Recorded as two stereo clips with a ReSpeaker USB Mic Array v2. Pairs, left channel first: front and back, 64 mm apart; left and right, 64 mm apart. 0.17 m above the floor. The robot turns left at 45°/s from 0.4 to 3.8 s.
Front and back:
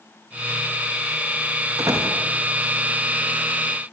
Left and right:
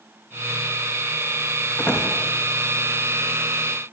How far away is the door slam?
About 6.5 m.